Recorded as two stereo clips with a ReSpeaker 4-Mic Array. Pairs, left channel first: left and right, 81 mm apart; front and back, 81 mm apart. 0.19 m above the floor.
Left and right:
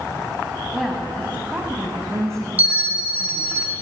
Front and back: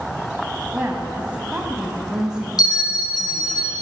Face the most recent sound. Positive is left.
turn(degrees=-25)